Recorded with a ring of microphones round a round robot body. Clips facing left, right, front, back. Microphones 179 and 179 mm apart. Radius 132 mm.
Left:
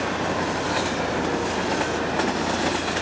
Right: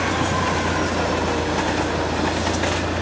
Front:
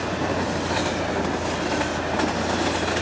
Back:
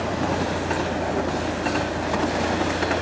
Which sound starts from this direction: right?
A vehicle, at 0.0 s.